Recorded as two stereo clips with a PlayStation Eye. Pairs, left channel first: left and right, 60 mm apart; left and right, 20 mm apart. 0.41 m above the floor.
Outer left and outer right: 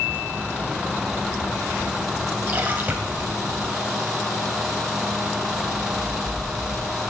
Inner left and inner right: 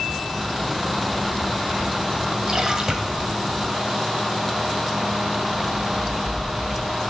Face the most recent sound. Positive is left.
turn(degrees=-30)  # may be behind; listen again after turning